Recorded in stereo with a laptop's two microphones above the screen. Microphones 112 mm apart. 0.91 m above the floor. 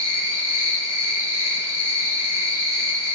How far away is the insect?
About 2 m.